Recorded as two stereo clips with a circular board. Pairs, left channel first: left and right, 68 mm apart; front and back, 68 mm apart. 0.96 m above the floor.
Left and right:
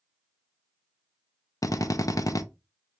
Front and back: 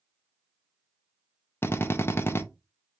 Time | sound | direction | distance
1.6 | a drill | 55° left | 0.5 m